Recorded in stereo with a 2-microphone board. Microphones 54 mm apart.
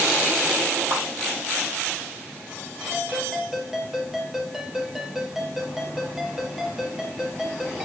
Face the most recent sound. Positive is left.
turn(degrees=-10)  # may be behind; listen again after turning